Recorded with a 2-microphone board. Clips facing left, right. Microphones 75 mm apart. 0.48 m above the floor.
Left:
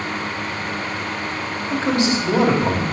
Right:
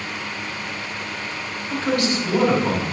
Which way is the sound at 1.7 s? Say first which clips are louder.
Left 2 dB; 25° left (ahead or behind).